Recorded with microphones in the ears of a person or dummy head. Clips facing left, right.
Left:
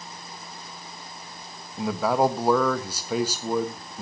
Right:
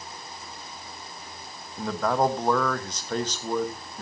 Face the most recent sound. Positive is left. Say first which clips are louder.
# left 2 dB
turn(degrees=5)  # may be behind; listen again after turning